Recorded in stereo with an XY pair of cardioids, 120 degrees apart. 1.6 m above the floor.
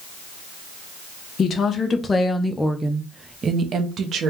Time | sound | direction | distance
1.4 | a woman speaking | 40° left | 1.1 m